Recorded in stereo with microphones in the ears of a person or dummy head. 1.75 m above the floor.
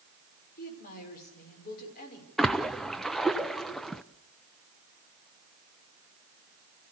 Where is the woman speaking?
45° left (ahead or behind), 6 m.